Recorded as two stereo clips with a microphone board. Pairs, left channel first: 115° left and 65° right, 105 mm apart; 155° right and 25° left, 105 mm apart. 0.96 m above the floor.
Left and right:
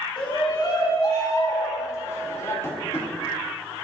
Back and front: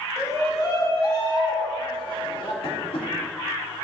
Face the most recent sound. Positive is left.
turn(degrees=175)